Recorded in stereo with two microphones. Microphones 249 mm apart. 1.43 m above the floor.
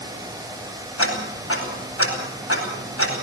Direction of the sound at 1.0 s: 70° left (ahead or behind).